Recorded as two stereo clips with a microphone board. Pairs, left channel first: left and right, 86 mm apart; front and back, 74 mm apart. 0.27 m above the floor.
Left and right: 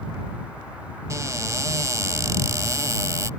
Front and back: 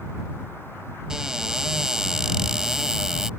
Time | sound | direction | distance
1.1 | a cupboard door | 105° right | ?